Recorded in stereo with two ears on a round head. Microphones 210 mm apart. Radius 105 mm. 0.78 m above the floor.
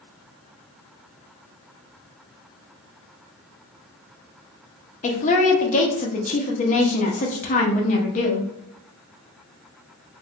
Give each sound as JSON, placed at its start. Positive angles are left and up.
{"t": 5.0, "sound": "a woman speaking", "side_deg": 35, "distance_m": 0.8}